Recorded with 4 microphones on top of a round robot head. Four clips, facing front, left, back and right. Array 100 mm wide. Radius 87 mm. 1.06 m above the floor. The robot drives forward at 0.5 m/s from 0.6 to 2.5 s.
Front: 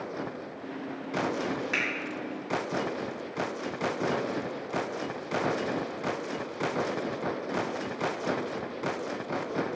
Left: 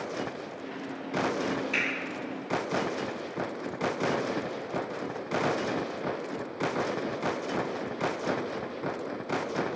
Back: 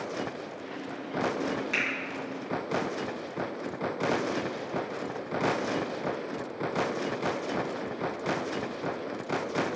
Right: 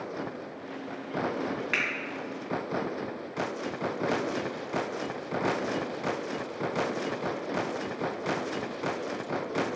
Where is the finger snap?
65° right, 0.7 m; by 1.8 s 70° right, 0.7 m.